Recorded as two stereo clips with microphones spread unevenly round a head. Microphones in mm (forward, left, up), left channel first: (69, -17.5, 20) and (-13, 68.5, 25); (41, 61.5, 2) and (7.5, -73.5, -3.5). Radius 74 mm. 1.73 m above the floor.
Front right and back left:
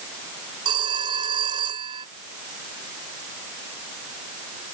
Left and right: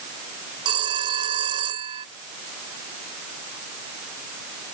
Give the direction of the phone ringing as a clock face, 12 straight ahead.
6 o'clock.